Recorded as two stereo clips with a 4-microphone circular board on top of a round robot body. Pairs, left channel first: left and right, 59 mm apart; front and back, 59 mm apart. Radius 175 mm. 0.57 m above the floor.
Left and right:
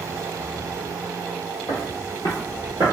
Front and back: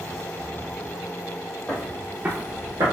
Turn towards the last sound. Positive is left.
turn(degrees=-145)